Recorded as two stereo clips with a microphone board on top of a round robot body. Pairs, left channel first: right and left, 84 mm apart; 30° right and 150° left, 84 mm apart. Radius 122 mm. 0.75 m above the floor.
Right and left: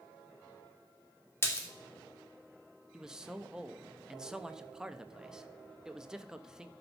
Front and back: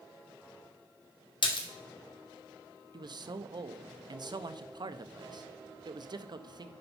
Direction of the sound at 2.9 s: 170° left.